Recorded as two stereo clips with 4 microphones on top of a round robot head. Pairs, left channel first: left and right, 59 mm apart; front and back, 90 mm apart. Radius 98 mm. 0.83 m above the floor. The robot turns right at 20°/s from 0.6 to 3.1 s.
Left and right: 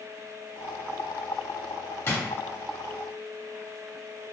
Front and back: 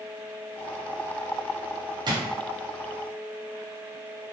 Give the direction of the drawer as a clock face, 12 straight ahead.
7 o'clock.